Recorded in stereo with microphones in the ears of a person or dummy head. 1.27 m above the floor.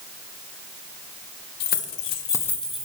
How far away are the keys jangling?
About 1.0 m.